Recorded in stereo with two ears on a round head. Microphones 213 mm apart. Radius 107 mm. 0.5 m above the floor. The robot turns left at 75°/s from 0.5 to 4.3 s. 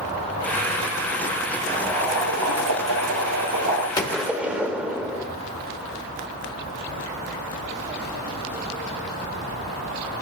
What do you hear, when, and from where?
1.7 s boiling: 5° left, 4 m; by 3.9 s 160° right, 4 m
4.0 s a gunshot: 15° left (ahead or behind), 1.1 m; by 5.2 s 5° right (ahead or behind), 1.1 m